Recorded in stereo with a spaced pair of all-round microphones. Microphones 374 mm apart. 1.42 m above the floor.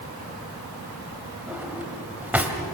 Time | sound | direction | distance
1.5 | a drawer | 5° right (ahead or behind) | 2.5 m